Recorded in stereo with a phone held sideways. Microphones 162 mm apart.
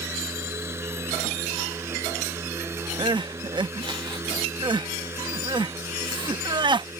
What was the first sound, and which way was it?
A fan, 15° right (ahead or behind).